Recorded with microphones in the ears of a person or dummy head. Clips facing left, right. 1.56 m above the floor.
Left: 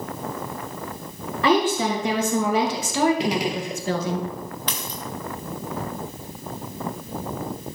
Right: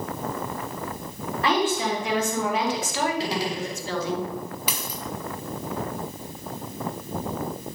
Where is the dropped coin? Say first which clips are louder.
Left 1 dB; 10° right (ahead or behind), 1.3 m.